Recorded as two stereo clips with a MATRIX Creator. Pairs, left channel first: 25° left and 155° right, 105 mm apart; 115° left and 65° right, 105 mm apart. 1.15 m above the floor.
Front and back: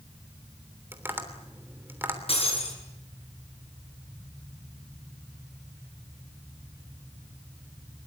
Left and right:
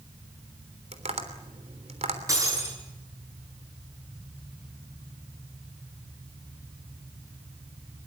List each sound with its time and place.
0.9 s tapping: 85° right, 3 m
2.3 s breaking glass: 10° right, 8 m